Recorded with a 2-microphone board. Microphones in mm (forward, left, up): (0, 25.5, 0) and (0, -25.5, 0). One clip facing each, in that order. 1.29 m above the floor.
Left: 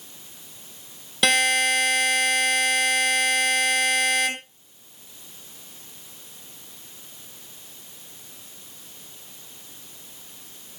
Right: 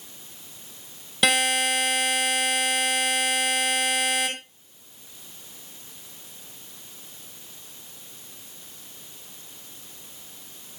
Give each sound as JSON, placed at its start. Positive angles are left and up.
{"t": 1.2, "sound": "a buzzer", "side_deg": 0, "distance_m": 7.0}